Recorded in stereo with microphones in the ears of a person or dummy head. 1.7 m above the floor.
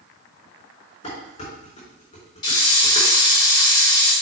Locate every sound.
1.0 s dishes clattering: 45° left (ahead or behind), 4 m
2.4 s a hiss: 15° left (ahead or behind), 3 m